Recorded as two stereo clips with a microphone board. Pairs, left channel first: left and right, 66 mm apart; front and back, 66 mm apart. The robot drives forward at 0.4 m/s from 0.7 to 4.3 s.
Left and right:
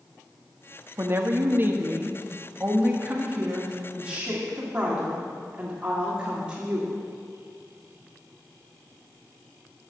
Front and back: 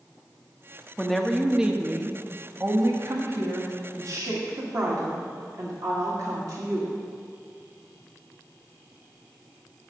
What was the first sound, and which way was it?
A woman speaking, 75° right.